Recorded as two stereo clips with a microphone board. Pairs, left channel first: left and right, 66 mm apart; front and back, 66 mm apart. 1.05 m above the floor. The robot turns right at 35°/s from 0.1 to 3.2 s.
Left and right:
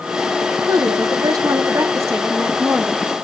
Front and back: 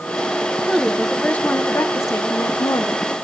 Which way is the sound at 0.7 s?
95° right.